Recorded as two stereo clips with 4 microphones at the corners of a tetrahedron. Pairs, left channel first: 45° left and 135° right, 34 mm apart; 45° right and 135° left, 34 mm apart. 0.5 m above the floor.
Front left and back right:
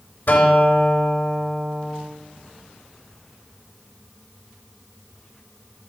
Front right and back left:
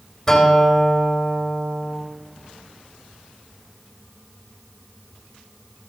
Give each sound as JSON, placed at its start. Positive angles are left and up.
{"t": 0.3, "sound": "a guitar", "azimuth_deg": 35, "distance_m": 2.5}